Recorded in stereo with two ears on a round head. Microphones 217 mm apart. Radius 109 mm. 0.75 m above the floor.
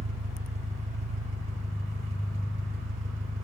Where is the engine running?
30° right (ahead or behind), 1.1 m.